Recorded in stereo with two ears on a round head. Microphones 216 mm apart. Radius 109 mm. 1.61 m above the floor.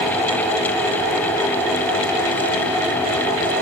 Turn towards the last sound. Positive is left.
No sound to turn to.